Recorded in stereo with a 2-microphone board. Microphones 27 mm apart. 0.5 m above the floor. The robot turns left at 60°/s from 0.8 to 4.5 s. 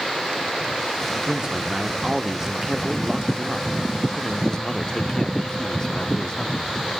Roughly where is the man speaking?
Right.